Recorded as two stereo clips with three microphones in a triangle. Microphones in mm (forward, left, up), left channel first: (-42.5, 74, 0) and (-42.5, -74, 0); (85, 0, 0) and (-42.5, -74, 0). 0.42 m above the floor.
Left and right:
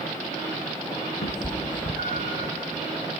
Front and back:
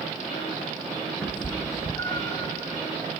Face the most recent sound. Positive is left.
turn(degrees=85)